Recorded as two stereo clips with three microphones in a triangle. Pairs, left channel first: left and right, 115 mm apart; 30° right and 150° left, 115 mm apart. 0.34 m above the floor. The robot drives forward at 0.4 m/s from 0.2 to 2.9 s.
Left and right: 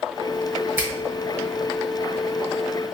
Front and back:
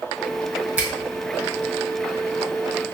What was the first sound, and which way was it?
A finger snap, 145° right.